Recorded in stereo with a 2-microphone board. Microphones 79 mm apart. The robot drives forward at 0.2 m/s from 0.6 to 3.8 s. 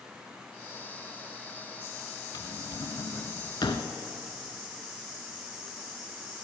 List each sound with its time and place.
2.3 s a drawer: 65° left (ahead or behind), 1.2 m; by 3.9 s 75° left (ahead or behind), 1.1 m